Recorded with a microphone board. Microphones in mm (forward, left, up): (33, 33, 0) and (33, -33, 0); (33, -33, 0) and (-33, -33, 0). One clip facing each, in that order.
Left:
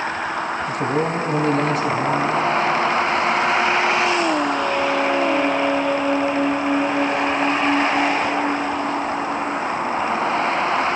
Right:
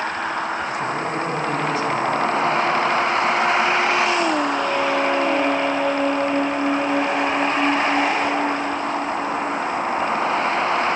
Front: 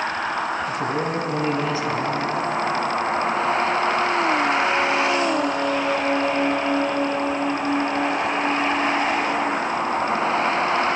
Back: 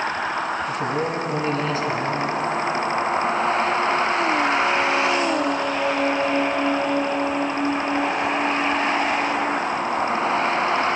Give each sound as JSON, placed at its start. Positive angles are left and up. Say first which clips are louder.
{"t": 0.7, "sound": "a man speaking", "louder": "left 3 dB, even", "azimuth_deg": 70, "distance_m": 5.0}